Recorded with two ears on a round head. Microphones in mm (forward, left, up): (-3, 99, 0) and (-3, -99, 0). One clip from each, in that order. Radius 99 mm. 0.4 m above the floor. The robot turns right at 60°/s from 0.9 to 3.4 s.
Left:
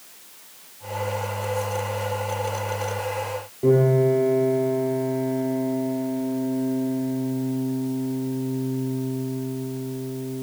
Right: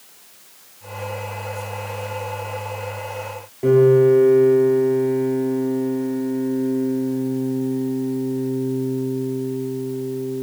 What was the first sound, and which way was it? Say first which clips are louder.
A piano: right 6 dB; 45° right (ahead or behind).